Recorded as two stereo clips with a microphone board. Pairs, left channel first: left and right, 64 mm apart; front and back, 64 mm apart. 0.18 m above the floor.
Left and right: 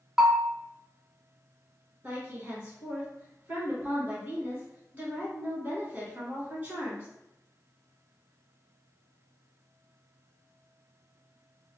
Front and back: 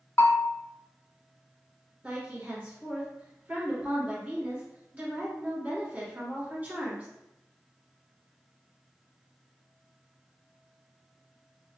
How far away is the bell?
About 0.6 m.